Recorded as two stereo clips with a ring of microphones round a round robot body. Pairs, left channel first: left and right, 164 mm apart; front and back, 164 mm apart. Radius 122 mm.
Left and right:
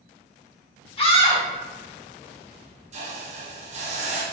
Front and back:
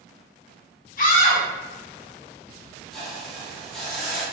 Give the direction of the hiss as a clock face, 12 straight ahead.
3 o'clock.